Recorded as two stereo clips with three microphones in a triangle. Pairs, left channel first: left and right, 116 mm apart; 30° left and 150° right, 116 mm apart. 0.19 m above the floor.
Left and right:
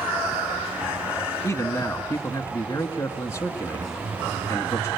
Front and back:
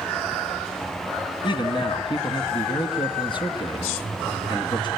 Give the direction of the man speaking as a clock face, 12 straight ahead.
11 o'clock.